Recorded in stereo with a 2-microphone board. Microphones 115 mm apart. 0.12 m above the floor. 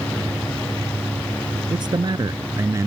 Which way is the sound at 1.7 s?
45° right (ahead or behind).